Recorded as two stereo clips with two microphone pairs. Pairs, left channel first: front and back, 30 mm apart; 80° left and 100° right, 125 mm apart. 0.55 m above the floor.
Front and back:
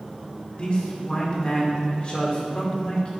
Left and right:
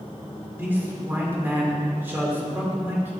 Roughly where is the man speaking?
Ahead right.